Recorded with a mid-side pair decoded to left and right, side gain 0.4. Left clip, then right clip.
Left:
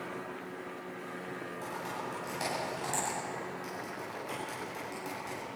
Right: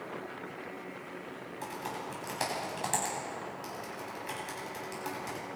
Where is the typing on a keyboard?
45° right, 9.5 m.